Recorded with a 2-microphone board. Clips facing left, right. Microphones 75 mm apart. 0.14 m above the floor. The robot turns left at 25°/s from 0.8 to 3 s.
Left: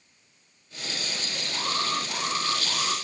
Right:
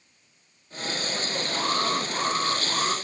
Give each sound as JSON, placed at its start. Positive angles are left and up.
{"t": 1.5, "sound": "an alarm", "azimuth_deg": -50, "distance_m": 6.0}